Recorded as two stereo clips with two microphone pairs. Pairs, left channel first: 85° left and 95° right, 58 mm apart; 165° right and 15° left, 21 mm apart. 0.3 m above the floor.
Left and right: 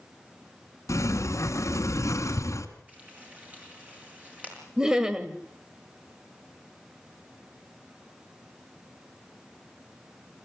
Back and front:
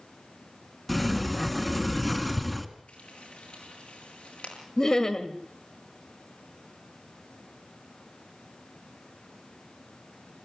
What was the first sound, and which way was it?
A sliding door, 110° left.